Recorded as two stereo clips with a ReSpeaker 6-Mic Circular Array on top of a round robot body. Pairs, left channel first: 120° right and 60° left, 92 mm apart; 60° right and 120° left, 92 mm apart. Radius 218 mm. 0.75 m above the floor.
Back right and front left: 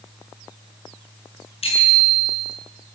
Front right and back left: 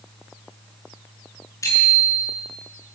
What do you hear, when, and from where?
1.6 s a bicycle bell: 115° right, 9.5 m